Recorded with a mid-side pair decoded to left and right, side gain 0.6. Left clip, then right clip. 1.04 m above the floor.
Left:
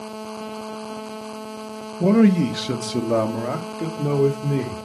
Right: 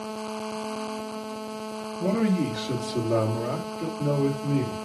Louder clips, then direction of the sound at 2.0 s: Left 8 dB; 40° left.